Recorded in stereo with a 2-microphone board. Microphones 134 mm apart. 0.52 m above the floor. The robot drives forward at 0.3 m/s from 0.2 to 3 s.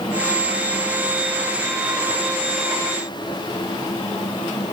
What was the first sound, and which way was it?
Only background noise.